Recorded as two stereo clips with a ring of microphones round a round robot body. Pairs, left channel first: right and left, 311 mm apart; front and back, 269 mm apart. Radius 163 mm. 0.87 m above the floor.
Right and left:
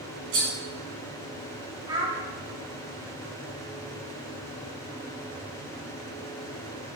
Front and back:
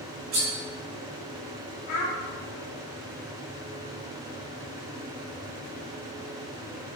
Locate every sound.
0.3 s cutlery clinking: 140° left, 1.8 m
1.9 s a child speaking: 15° left, 1.1 m